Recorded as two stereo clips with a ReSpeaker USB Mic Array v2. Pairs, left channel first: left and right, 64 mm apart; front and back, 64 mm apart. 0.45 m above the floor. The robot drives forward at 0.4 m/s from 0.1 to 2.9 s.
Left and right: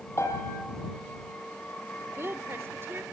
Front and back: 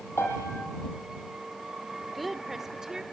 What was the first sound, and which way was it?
A piano, 45° left.